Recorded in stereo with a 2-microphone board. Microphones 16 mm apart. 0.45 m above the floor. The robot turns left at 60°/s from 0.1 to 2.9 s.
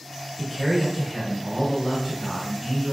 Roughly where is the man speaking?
Ahead right.